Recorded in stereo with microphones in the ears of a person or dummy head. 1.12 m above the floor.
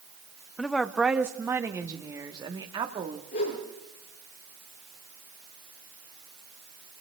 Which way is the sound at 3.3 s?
50° left (ahead or behind).